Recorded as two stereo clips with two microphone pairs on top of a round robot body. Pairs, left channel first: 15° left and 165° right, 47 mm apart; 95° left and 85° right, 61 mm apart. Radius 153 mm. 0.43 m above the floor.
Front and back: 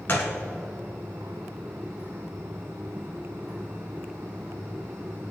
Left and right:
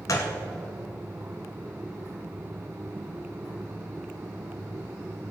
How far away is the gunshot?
About 0.9 m.